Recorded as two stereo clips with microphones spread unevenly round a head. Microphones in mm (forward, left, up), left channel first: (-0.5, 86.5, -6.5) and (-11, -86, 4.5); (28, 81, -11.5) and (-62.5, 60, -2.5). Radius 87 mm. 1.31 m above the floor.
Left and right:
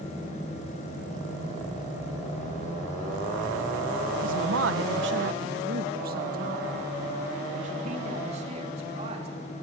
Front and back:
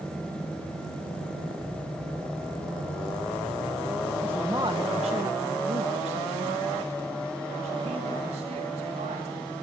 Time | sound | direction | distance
4.2 | a woman speaking | 80° right | 1.2 m